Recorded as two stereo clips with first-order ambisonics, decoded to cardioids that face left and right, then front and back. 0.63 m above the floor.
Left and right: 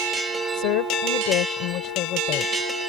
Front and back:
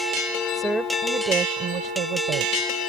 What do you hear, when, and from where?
0.5 s a woman speaking: 90° left; by 2.7 s 140° left